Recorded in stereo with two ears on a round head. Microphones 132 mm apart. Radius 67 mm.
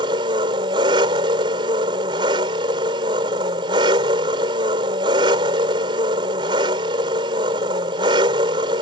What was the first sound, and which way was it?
An engine running, 30° right (ahead or behind).